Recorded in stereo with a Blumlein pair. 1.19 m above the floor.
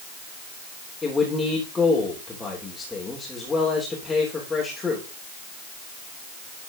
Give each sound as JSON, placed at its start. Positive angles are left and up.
{"t": 1.0, "sound": "a man speaking", "azimuth_deg": 10, "distance_m": 3.0}